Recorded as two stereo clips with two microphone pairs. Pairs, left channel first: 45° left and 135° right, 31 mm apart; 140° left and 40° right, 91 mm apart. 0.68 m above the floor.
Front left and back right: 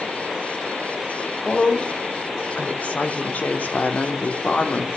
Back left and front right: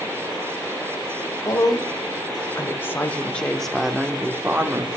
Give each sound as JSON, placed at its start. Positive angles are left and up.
{"t": 1.4, "sound": "a woman speaking", "azimuth_deg": 95, "distance_m": 2.5}